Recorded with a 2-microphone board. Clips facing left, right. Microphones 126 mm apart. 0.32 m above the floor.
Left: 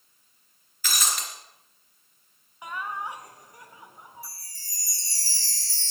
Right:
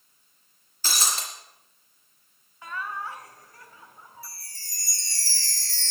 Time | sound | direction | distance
0.8 | breaking glass | 30° right (ahead or behind) | 3 m
2.6 | laughter | 15° left (ahead or behind) | 1.4 m
4.2 | a chime | 70° right (ahead or behind) | 0.7 m